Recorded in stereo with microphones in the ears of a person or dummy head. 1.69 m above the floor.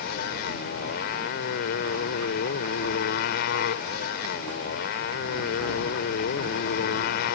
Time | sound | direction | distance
0.0 | a motorcycle | 60° left (ahead or behind) | ?